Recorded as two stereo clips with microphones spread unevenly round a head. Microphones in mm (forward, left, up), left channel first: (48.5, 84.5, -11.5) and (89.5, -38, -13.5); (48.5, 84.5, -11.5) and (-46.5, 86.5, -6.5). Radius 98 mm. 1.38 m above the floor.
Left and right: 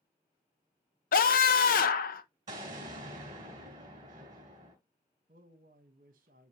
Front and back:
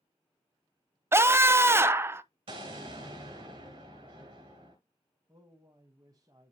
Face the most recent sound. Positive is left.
turn(degrees=-110)